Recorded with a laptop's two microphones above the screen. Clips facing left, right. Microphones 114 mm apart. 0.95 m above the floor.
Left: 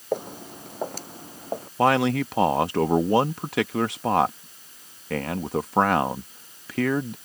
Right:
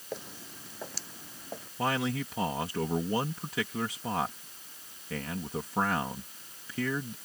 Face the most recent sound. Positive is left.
turn(degrees=70)  # may be behind; listen again after turning